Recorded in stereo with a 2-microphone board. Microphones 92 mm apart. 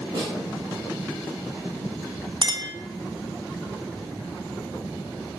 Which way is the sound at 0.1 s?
60° right (ahead or behind).